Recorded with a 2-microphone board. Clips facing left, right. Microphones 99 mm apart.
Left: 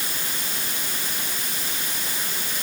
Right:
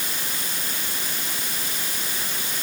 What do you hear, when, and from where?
Only background noise.